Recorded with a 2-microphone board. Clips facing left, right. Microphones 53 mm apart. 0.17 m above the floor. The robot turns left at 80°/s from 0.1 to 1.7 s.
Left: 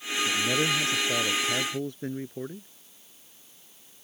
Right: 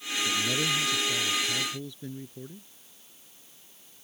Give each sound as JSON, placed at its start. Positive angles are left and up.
{"t": 0.2, "sound": "a man speaking", "azimuth_deg": 170}